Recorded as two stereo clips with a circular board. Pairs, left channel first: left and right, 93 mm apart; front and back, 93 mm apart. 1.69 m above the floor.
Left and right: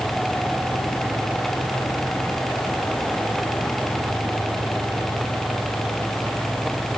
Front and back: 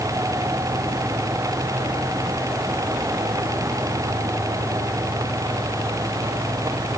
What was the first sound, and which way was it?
Only background noise.